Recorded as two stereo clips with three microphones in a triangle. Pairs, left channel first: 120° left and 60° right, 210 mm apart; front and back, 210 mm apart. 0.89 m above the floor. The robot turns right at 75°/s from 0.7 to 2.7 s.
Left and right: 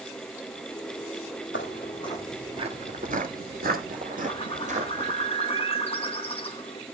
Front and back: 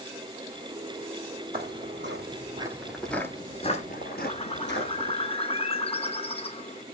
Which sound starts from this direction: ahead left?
A bird, at 4.2 s.